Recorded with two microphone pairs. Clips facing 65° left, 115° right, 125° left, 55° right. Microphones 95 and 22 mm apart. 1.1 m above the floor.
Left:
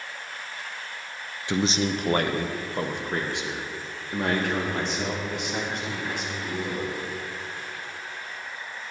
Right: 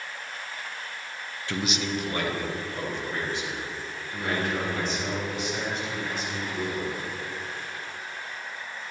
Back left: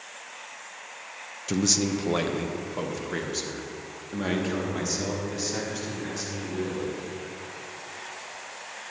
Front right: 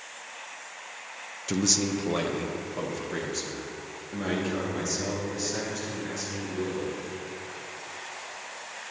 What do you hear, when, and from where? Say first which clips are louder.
1.5 s a man speaking: left 5 dB, back left 1 dB; 40° left, 0.6 m; by 7.0 s 60° left, 4.5 m